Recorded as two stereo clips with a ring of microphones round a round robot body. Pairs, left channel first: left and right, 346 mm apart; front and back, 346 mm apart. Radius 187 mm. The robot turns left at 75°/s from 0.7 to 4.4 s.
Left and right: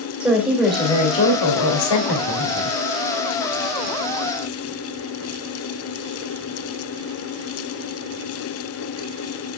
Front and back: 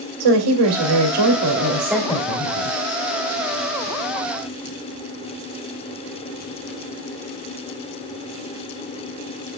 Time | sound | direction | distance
0.2 | a woman speaking | 175° right | 2 m